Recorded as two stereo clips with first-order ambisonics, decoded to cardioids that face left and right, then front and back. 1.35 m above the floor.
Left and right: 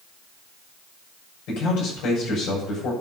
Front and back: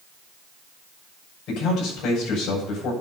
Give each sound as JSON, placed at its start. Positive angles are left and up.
{"t": 1.5, "sound": "a man speaking", "azimuth_deg": 55, "distance_m": 6.5}